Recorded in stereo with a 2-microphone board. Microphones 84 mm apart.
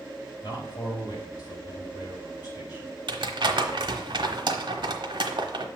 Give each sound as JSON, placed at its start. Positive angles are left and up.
{"t": 0.4, "sound": "a man speaking", "side_deg": 50, "distance_m": 3.0}
{"t": 3.1, "sound": "crumpling", "side_deg": -70, "distance_m": 1.1}